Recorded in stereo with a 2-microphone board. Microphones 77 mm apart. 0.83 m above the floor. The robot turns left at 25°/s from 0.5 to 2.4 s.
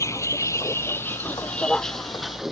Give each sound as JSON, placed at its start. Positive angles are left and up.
{"t": 0.0, "sound": "a vehicle", "side_deg": 40}